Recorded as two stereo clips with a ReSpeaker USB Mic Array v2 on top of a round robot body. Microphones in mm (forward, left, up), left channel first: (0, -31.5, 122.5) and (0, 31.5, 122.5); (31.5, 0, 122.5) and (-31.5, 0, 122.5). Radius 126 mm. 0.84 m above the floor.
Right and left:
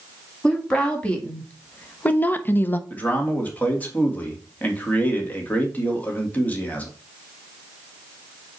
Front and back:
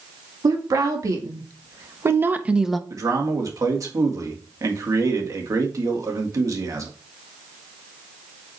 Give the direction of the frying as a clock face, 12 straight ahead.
I don't hear frying.